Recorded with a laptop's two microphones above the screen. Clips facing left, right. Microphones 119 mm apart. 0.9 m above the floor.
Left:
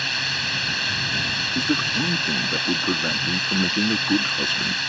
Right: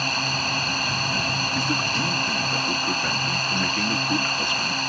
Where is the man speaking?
20° left (ahead or behind).